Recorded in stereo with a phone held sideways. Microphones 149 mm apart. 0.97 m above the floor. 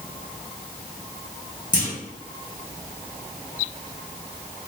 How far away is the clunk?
About 1.4 m.